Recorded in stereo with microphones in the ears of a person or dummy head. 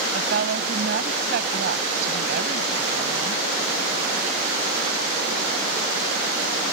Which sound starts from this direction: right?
A woman speaking, at 0.1 s.